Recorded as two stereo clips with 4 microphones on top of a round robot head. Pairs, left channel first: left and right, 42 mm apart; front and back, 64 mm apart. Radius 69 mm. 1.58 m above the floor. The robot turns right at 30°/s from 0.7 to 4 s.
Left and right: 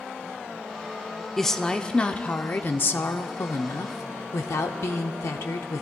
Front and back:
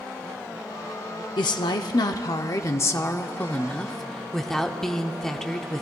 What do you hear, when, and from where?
1.4 s a woman speaking: 5° left, 0.5 m; by 5.8 s 85° left, 0.5 m